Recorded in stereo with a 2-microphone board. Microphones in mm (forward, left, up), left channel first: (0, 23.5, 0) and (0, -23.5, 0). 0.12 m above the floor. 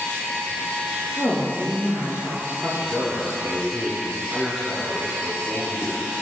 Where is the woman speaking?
40° left (ahead or behind), 1.9 m.